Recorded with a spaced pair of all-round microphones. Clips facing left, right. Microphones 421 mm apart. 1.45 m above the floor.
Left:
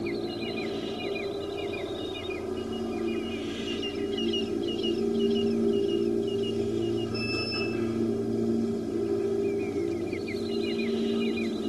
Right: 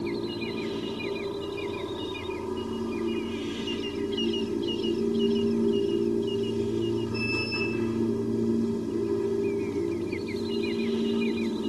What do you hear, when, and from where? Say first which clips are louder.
0.0 s a machine running: right 1 dB; 10° right (ahead or behind)